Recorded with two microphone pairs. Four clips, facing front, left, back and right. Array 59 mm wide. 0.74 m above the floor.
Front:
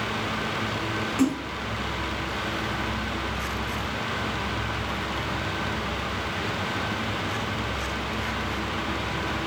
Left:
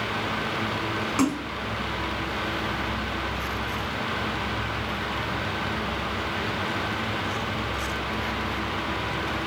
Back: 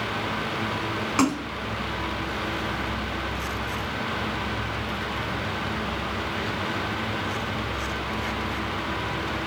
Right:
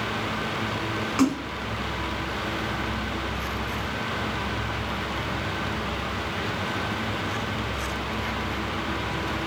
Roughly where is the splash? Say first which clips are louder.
Right 2 dB, back 1 dB; behind.